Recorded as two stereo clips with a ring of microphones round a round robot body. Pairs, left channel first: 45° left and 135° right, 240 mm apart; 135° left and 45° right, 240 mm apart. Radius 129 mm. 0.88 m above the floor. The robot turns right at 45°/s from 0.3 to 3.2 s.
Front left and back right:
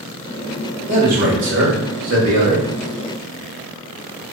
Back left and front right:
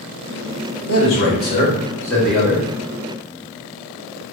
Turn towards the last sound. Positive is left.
turn(degrees=-95)